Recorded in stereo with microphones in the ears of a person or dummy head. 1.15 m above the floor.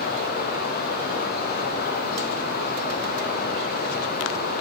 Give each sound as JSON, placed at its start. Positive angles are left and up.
{"t": 0.0, "sound": "running water", "side_deg": 55, "distance_m": 0.8}